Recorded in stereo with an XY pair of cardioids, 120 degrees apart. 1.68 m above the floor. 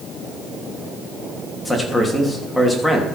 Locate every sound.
1.6 s a man speaking: 10° left, 3 m